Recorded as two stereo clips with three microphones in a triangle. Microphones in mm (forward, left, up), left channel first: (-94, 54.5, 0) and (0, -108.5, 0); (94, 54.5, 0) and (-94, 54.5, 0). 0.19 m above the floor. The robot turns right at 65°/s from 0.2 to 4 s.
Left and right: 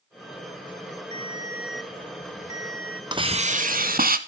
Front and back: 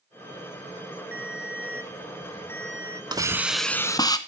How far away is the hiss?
About 0.9 m.